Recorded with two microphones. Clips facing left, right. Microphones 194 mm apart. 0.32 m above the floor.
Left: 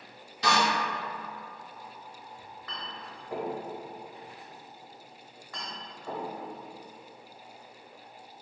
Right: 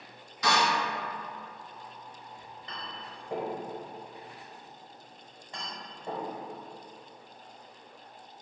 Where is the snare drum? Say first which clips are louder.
Left 1 dB; 35° left (ahead or behind), 1.7 m.